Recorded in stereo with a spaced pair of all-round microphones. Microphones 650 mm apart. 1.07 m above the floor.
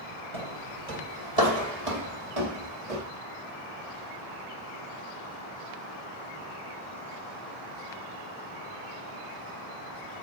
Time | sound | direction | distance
0.3 | footsteps | 45° right (ahead or behind) | 2.5 m